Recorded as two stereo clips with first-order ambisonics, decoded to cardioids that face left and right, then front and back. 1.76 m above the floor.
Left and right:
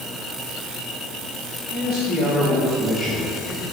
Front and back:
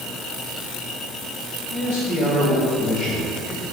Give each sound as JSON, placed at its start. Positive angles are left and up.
{"t": 1.7, "sound": "a man speaking", "azimuth_deg": -20, "distance_m": 1.6}